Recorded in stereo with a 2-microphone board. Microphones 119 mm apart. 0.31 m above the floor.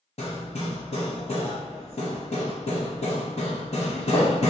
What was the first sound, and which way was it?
Hammering, 60° left (ahead or behind).